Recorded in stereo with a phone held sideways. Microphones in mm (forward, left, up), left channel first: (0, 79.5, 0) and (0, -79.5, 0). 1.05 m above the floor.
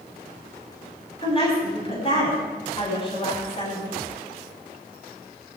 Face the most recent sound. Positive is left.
turn(degrees=35)  # may be behind; listen again after turning